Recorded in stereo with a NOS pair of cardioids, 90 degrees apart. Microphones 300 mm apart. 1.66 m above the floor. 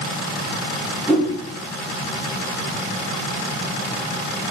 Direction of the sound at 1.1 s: Straight ahead.